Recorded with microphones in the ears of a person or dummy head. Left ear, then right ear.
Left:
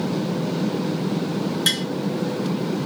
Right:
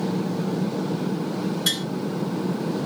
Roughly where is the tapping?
Left.